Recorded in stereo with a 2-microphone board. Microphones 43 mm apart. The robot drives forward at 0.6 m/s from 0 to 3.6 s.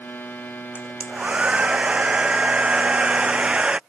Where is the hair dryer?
25° right (ahead or behind).